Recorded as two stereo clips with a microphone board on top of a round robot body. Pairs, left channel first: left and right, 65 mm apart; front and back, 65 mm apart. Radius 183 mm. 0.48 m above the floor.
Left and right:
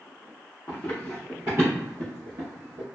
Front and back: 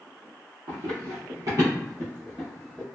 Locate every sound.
0.7 s running footsteps: 155° left, 0.7 m; by 2.8 s 85° right, 0.9 m